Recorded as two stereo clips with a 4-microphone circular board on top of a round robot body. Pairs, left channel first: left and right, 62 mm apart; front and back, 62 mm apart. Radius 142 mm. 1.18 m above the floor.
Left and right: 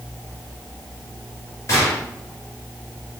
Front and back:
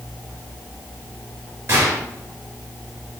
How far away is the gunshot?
About 2 m.